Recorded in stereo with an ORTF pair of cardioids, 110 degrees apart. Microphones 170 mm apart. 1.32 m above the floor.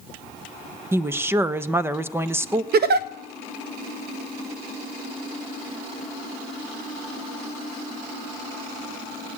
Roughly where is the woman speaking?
Ahead.